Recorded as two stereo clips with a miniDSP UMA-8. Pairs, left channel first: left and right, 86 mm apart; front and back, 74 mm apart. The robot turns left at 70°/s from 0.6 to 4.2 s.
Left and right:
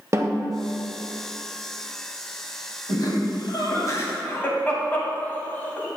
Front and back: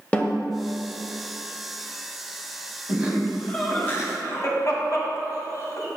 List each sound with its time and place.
0.1 s a snare drum: 65° right, 0.7 m
2.9 s laughter: 120° left, 1.6 m; by 5.9 s 30° left, 1.6 m